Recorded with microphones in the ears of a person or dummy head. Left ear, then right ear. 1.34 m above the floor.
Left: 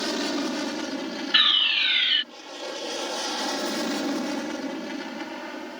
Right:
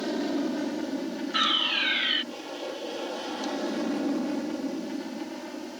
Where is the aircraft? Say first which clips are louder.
Left 2 dB; 55° left (ahead or behind).